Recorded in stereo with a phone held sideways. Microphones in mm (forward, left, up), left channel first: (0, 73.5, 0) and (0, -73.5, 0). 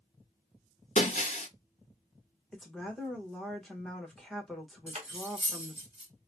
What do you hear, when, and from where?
0.9 s breaking glass: 50° left (ahead or behind), 0.7 m
2.5 s a woman speaking: 5° left (ahead or behind), 1.4 m
4.9 s cutlery clinking: 45° right (ahead or behind), 0.9 m